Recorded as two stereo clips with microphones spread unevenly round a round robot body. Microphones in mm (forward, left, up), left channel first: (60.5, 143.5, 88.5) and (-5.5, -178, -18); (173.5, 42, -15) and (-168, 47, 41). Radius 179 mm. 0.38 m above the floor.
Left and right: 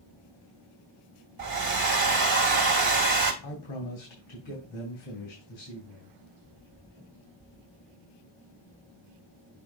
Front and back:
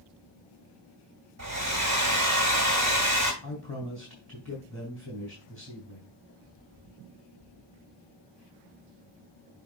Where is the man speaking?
120° left, 4 m.